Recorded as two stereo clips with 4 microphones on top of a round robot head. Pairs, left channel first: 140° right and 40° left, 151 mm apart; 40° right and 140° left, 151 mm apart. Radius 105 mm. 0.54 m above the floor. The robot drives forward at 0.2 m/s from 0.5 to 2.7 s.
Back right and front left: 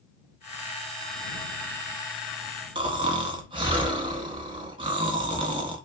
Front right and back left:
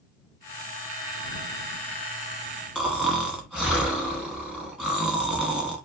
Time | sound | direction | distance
2.8 | snoring | 60° left | 0.9 m